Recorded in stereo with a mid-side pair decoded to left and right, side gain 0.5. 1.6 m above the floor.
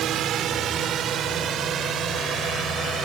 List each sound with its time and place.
0.0 s a drone: 65° right; by 3.1 s 55° right